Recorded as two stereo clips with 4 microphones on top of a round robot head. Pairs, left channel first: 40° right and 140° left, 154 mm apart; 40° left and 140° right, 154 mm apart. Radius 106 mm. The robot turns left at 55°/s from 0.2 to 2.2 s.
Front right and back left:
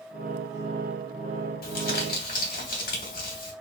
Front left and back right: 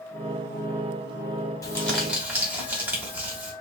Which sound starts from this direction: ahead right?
Crumpling, at 1.6 s.